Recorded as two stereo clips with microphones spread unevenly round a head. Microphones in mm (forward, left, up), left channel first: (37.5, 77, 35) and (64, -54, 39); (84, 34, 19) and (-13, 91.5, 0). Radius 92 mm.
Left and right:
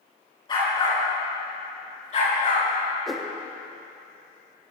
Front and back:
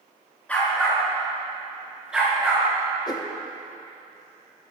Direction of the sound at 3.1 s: 10° left.